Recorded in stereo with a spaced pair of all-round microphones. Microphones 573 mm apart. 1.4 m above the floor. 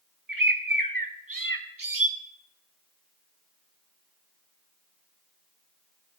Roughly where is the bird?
Right.